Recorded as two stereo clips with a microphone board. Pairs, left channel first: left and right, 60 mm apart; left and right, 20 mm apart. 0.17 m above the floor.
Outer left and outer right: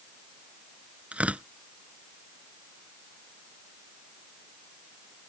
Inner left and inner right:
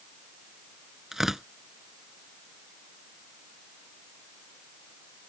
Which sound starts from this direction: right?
Tearing paper, at 1.1 s.